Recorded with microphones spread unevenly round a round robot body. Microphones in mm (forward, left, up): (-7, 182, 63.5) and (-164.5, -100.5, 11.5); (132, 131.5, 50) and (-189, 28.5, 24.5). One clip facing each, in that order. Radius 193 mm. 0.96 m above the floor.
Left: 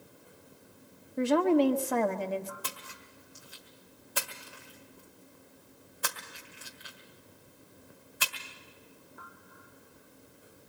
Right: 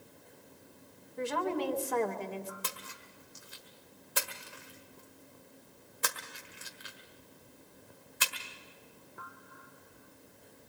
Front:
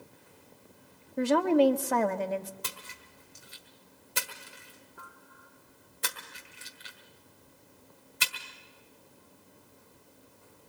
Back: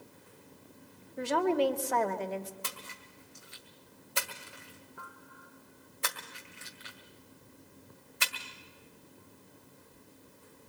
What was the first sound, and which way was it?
A woman speaking, 25° left.